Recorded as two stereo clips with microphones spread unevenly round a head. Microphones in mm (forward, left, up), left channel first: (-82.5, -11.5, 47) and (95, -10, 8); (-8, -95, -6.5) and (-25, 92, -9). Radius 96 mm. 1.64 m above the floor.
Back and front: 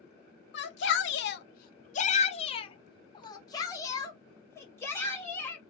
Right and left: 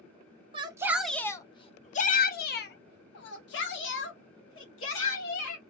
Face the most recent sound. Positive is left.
turn(degrees=-100)